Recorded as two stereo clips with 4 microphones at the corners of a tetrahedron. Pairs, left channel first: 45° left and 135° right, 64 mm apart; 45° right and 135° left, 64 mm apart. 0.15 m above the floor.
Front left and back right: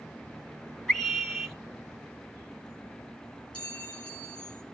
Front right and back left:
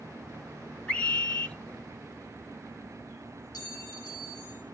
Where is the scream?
15° right, 1.0 m.